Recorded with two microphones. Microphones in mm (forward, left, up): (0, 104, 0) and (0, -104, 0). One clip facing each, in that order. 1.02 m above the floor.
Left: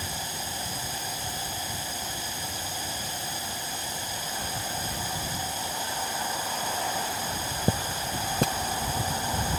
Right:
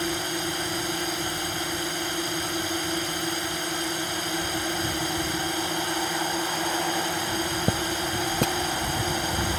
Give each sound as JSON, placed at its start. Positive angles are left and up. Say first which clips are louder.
{"t": 0.0, "sound": "a drone", "louder": "right 10 dB", "side_deg": -65}